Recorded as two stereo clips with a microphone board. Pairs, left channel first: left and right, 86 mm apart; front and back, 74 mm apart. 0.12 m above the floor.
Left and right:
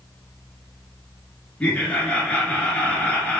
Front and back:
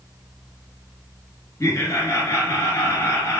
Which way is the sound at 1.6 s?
20° left.